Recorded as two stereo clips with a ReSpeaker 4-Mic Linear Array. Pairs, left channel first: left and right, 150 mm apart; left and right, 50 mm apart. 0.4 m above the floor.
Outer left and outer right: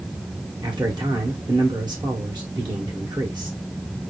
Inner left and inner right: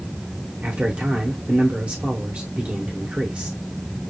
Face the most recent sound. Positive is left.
turn(degrees=-30)  # may be behind; listen again after turning